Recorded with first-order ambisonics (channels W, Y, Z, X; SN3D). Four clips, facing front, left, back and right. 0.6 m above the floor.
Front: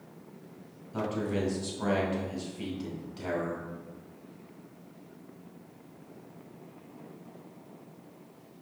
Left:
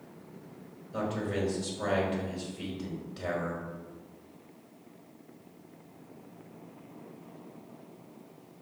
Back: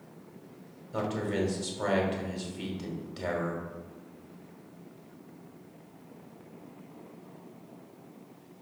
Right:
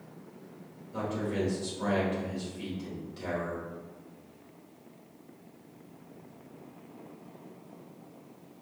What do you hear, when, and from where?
0.9 s a man speaking: 170° left, 1.5 m